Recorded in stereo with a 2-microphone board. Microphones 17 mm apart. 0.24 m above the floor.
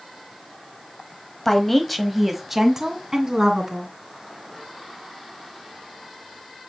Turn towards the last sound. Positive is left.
turn(degrees=-35)  # may be behind; listen again after turning